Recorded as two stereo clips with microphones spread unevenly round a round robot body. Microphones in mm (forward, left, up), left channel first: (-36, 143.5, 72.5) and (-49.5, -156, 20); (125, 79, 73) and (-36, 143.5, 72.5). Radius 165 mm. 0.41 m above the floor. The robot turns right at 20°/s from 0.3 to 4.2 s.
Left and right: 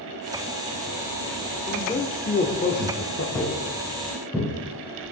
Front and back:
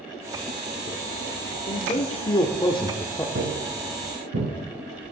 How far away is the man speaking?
About 1.3 m.